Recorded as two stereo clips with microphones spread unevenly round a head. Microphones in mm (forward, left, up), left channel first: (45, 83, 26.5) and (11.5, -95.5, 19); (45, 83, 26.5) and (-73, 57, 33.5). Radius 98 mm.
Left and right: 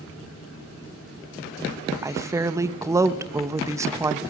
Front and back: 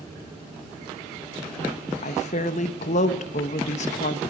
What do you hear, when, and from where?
2.0 s a woman speaking: 25° right, 0.7 m